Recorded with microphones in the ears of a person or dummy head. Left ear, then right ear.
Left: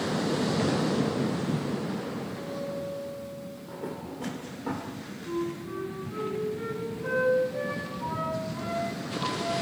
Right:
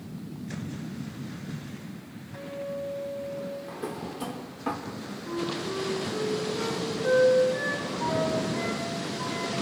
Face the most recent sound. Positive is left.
turn(degrees=-40)  # may be behind; listen again after turning